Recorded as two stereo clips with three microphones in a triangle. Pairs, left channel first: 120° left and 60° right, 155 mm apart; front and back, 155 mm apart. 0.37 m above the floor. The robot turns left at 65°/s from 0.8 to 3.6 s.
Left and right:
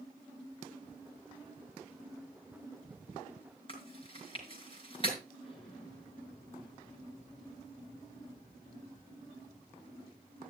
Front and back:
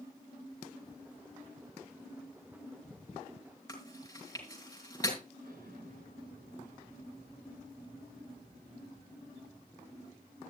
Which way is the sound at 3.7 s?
65° left.